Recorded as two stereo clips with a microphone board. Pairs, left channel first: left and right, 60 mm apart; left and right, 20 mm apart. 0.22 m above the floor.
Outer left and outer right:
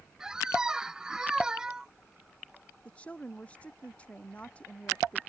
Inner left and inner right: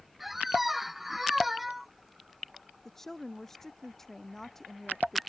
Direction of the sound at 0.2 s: 10° right (ahead or behind).